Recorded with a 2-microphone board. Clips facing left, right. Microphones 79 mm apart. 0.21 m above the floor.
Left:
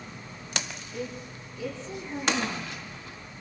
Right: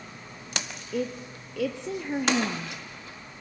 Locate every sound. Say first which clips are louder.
0.9 s a woman speaking: right 7 dB; 75° right (ahead or behind), 3.5 m